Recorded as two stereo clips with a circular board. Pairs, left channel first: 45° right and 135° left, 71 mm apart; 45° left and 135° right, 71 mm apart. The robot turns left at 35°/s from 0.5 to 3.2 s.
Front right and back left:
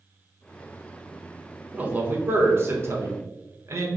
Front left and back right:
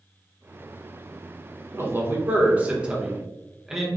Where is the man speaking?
165° right, 0.8 m; by 3.9 s 145° left, 0.8 m.